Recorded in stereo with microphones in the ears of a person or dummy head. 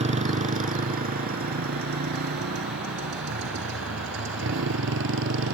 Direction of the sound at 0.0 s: 35° right (ahead or behind).